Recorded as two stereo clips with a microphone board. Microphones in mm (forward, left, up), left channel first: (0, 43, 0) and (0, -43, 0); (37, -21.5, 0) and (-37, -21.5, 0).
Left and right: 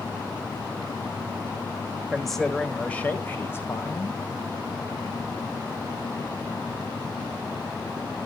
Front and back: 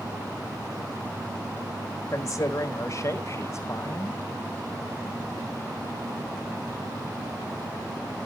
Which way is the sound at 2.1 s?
Straight ahead.